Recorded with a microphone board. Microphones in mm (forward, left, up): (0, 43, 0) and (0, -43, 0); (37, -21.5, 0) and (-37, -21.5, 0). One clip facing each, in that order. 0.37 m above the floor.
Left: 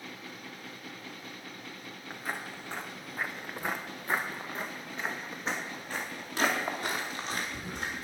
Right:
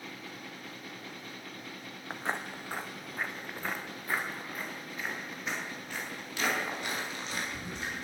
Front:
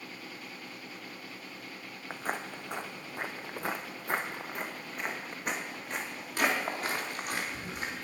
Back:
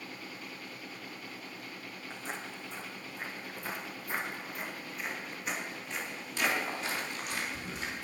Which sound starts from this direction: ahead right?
Footsteps, at 2.1 s.